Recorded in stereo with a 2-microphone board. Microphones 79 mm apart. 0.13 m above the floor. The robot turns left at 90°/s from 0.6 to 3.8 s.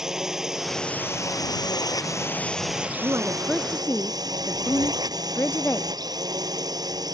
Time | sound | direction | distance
0.0 | a drone | 175° right | ?
3.0 | a woman speaking | 135° right | ?